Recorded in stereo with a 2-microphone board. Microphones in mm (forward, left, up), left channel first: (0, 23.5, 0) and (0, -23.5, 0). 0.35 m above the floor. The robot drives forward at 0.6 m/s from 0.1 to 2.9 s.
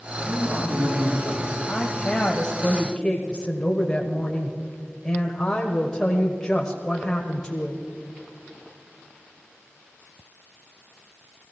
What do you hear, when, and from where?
0.2 s a man speaking: 65° right (ahead or behind), 6.5 m; by 1.5 s 60° right (ahead or behind), 7 m
1.7 s a woman speaking: 10° left (ahead or behind), 1.8 m